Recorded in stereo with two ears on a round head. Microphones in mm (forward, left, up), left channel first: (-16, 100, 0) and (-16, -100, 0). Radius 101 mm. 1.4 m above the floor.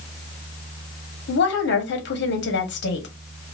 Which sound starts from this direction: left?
A woman speaking, at 1.3 s.